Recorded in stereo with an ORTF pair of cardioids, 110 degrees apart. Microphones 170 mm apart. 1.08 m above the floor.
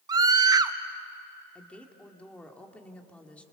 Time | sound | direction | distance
0.1 | a scream | 25° right | 1.2 m
1.6 | a woman speaking | 5° left | 2 m